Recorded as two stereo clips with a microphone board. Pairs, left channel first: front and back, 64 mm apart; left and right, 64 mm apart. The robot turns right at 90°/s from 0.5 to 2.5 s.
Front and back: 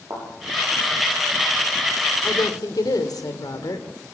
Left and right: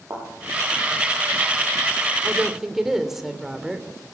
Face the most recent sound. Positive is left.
turn(degrees=-5)